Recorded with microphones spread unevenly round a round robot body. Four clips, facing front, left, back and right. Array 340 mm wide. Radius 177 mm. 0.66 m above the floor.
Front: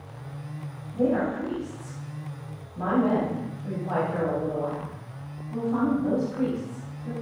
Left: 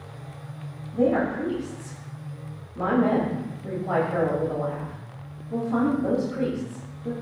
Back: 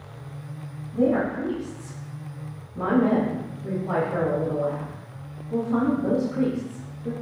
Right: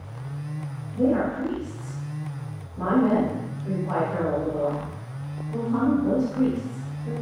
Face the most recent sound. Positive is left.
turn(degrees=150)